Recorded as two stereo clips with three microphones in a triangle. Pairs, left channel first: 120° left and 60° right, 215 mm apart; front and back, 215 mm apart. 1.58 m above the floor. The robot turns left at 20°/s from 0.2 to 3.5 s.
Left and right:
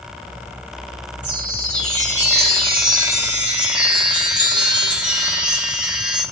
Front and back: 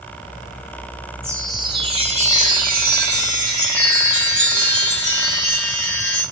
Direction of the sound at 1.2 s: 100° right.